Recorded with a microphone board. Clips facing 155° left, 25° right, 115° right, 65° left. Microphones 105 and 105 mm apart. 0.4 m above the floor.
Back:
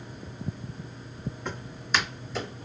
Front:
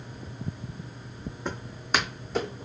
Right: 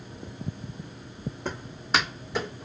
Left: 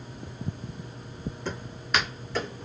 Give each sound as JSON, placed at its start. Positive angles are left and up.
{"t": 1.4, "sound": "footsteps", "azimuth_deg": -80, "distance_m": 1.1}